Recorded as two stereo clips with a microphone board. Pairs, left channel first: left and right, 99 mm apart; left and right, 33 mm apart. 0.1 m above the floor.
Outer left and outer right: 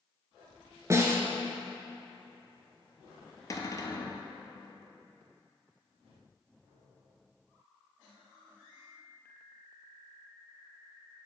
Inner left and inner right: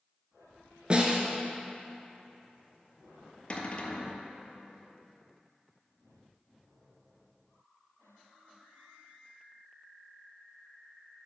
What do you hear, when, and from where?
0.9 s a snare drum: 30° right (ahead or behind), 0.8 m
3.5 s a cupboard door: 35° left (ahead or behind), 0.7 m